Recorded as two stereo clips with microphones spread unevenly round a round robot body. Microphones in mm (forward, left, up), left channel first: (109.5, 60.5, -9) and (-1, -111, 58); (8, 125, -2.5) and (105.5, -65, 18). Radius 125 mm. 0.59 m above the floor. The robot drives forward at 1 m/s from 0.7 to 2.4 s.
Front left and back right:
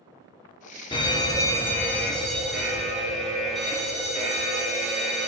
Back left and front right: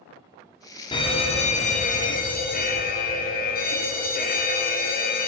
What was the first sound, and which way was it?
A fire alarm, 70° left.